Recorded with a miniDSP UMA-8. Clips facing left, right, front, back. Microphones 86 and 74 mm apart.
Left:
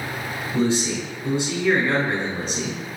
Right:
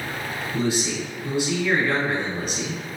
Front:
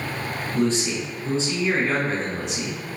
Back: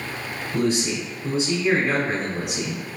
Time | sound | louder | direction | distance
0.5 | a man speaking | left 3 dB, even | 105° left | 1.1 m